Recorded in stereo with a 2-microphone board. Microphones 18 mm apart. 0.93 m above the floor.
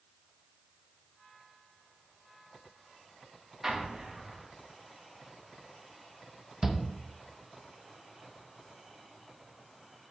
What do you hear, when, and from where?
3.6 s an explosion: 35° right (ahead or behind), 1.4 m
6.6 s a shout: 25° right (ahead or behind), 1.2 m